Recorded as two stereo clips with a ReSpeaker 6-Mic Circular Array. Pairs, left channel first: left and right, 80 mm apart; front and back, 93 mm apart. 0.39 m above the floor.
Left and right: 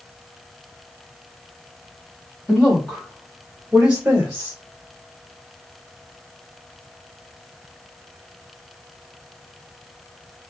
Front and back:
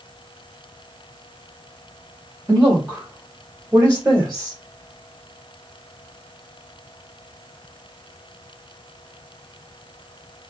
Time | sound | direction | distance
2.5 | a woman speaking | 140° left | 1.6 m